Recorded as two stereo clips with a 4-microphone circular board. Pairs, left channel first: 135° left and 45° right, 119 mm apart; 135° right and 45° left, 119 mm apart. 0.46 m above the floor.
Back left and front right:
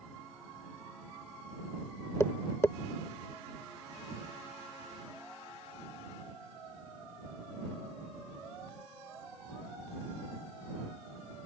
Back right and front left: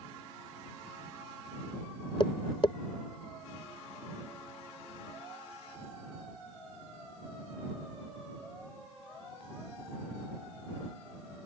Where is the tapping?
165° right.